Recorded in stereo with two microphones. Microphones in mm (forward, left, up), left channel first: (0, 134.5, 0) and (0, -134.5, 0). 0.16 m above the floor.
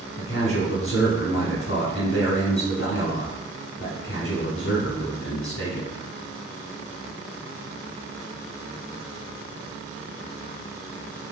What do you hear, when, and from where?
0.2 s a man speaking: 45° left (ahead or behind), 1.5 m